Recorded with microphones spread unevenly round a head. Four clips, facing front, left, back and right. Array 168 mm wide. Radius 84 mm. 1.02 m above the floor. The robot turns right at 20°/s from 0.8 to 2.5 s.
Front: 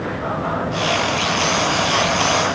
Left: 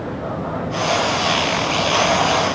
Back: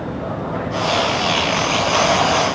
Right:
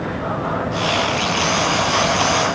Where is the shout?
No shout in this recording.